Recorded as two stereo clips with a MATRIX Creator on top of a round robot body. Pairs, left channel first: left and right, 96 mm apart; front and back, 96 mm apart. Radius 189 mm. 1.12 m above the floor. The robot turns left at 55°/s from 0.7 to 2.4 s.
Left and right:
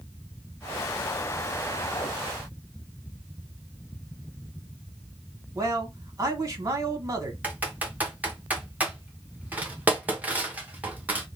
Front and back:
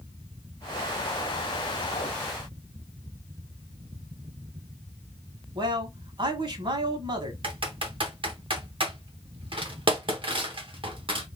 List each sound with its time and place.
5.5 s a man speaking: 150° right, 1.6 m
7.4 s typing on a keyboard: 165° right, 1.2 m